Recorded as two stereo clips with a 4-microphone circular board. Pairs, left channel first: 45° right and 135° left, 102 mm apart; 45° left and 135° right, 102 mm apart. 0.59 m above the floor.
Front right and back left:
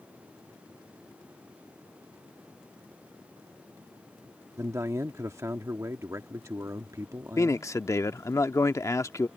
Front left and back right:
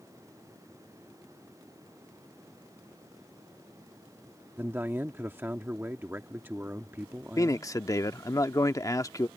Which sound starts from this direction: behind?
A man speaking, at 4.6 s.